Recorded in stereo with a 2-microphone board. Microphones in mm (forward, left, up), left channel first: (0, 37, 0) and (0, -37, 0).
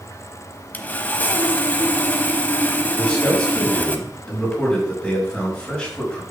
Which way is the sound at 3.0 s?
10° left (ahead or behind).